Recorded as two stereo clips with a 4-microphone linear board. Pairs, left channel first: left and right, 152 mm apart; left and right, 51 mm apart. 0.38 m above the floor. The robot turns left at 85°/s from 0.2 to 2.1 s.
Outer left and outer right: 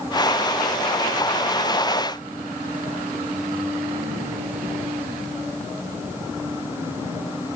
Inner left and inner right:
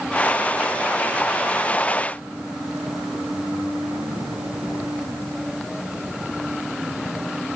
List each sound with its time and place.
Only background noise.